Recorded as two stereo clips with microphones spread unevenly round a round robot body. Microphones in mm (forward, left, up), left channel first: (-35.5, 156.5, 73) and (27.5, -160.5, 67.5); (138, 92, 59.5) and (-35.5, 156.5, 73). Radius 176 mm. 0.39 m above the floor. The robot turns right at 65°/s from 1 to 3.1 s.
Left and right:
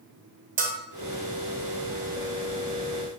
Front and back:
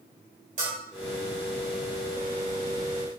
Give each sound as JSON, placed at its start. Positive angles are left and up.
{"t": 0.6, "sound": "a bell", "azimuth_deg": -145, "distance_m": 0.7}